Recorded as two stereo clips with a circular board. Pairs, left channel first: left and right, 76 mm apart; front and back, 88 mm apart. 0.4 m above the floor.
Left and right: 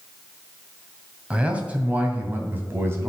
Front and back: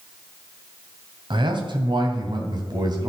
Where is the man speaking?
165° right, 2.5 m; by 3.1 s 145° right, 3 m.